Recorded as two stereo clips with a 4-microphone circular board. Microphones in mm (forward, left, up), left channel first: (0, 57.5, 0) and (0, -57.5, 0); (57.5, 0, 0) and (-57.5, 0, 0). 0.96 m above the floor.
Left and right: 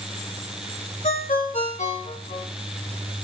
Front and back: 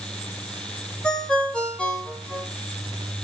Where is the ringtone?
80° left, 3 m.